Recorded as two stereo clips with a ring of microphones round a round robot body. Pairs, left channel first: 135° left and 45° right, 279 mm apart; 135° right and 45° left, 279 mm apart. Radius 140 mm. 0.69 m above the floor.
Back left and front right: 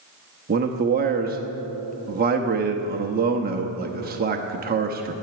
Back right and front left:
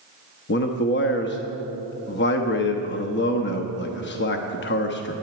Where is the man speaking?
95° right, 0.9 m.